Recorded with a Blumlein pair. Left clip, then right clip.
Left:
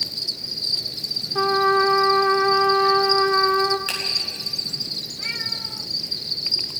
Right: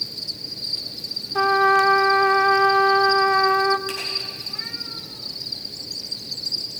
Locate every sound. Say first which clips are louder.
0.0 s an insect: left 3 dB; 25° left, 1.4 m
1.4 s a trumpet: right 2 dB; 10° right, 0.7 m
3.9 s a finger snap: left 3 dB; 40° left, 9.5 m